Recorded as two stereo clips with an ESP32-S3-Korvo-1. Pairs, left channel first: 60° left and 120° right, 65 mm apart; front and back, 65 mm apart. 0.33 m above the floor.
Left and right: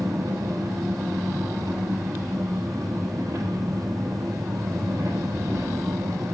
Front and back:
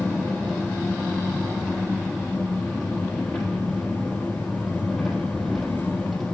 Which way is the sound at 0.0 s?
85° right.